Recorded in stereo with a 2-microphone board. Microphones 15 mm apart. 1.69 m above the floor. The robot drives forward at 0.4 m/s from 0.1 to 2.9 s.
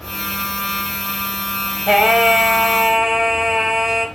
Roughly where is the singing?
Right.